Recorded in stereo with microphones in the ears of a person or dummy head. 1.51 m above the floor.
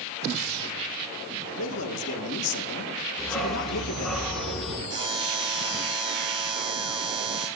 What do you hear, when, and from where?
1.6 s a man speaking: 80° left, 1.7 m
3.2 s a dog barking: 5° left (ahead or behind), 5.5 m
4.9 s a buzzer: 25° right (ahead or behind), 10 m